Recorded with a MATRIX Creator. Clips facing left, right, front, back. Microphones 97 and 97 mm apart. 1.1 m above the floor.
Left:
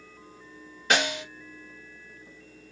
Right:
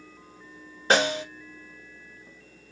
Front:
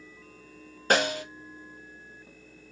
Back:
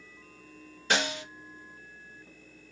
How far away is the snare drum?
About 1.0 m.